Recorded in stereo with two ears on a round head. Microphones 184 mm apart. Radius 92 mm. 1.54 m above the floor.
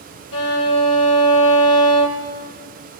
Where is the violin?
75° left (ahead or behind), 4 m.